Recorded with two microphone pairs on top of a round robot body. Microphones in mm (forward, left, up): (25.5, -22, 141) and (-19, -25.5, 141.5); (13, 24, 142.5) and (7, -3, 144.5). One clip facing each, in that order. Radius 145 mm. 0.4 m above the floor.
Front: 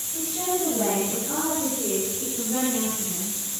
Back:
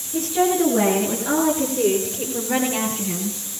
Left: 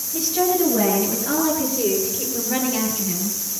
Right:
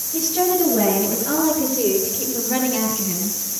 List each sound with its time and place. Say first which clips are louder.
0.1 s a woman speaking: back 8 dB, right 1 dB; 170° left, 9 m; by 3.3 s 160° left, 11.5 m